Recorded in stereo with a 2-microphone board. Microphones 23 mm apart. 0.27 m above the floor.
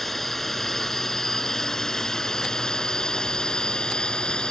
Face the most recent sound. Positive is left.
turn(degrees=40)  # may be behind; listen again after turning